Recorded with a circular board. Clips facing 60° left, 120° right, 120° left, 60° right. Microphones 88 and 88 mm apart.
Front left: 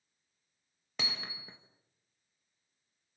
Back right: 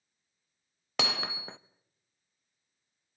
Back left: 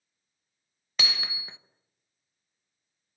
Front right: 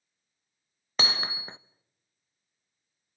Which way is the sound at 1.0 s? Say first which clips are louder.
Back right 9 dB, front right 4 dB; 115° right.